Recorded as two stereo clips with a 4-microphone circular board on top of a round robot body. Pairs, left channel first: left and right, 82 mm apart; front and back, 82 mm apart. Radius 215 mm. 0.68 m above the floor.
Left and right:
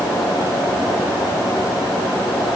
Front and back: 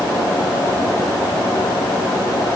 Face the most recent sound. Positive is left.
No sound to turn to.